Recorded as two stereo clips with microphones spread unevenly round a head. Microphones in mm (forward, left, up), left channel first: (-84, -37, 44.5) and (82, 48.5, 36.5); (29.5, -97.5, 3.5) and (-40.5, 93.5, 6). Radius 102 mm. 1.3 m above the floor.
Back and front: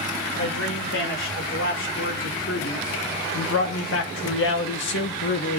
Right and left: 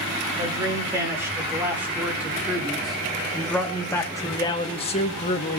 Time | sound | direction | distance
0.4 | a man speaking | 175° right | 3.5 m